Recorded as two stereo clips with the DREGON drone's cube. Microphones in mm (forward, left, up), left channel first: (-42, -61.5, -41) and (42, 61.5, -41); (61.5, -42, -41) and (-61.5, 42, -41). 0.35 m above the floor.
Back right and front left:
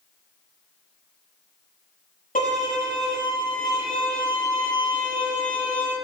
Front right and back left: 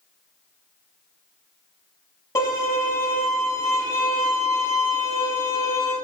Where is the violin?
100° right, 6.5 m.